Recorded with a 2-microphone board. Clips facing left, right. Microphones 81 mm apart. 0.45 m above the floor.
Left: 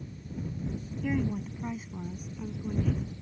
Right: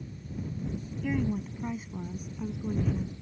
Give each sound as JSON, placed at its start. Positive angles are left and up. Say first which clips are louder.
{"t": 1.0, "sound": "a woman speaking", "louder": "even", "side_deg": 5}